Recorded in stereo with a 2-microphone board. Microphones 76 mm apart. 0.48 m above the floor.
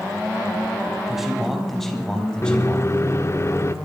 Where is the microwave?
40° left (ahead or behind), 0.6 m.